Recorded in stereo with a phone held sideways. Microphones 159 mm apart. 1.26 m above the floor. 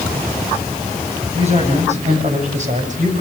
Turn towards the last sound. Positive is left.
turn(degrees=-55)  # may be behind; listen again after turning